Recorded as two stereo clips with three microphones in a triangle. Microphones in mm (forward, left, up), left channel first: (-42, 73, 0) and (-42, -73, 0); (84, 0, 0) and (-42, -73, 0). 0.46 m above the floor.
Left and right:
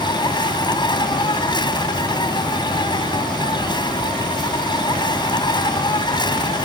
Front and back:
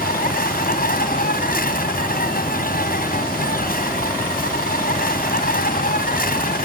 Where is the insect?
30° left.